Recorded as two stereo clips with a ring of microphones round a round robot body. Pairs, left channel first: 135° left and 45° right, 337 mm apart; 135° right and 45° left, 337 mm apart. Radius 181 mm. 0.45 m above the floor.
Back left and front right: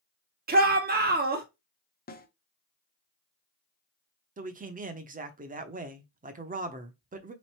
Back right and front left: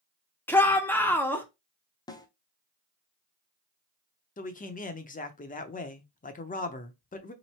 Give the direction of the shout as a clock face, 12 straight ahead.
2 o'clock.